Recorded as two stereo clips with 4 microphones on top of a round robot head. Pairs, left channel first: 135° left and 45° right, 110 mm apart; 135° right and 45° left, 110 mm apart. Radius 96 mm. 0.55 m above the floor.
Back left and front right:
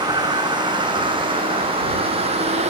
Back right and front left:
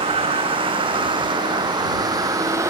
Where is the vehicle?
10° left; by 2.7 s 20° right.